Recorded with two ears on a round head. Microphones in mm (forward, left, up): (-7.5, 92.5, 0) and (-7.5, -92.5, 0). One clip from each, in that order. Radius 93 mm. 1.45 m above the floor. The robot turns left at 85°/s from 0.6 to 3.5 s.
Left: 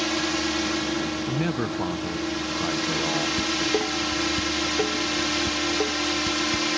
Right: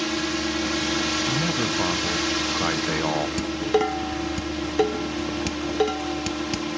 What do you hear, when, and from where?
0.0 s a drone: 10° left (ahead or behind); by 6.8 s 60° left (ahead or behind)
1.3 s a man speaking: 40° left; by 3.3 s 130° right
3.4 s dishes clattering: 35° right (ahead or behind); by 6.7 s 45° right (ahead or behind)